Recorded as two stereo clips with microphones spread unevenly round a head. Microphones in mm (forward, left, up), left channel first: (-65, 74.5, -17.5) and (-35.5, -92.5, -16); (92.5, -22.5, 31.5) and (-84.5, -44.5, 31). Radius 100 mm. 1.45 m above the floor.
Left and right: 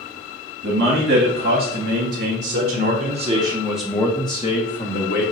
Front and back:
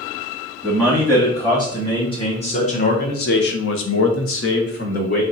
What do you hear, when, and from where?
0.6 s a man speaking: 65° right, 2 m; by 5.2 s 60° left, 1.1 m